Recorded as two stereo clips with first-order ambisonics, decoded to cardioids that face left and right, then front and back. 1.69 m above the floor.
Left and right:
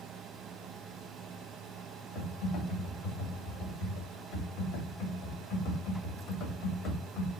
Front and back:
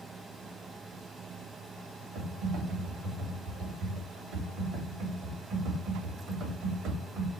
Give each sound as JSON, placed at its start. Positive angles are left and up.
{"t": 2.1, "sound": "typing on a keyboard", "azimuth_deg": 135, "distance_m": 2.5}